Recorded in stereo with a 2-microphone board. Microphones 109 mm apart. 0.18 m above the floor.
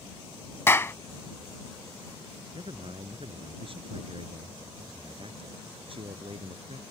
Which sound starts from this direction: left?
A clap, at 0.7 s.